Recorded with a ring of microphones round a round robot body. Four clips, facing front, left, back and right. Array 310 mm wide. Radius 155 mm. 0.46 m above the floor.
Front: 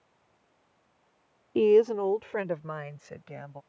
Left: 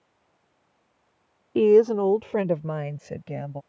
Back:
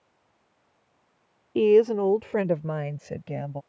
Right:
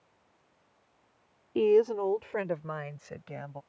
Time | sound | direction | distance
1.6 | a woman speaking | 100° left | ?